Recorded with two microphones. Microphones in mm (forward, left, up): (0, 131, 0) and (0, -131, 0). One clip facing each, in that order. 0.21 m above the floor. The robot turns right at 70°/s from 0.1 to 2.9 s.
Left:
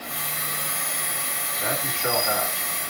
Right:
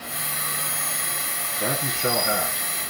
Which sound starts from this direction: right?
A man speaking, at 1.6 s.